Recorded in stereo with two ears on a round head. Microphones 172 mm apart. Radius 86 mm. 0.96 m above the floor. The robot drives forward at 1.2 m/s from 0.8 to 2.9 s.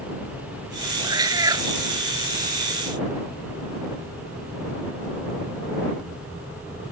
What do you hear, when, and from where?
1.0 s a cat meowing: 20° right (ahead or behind); by 1.7 s 15° right (ahead or behind)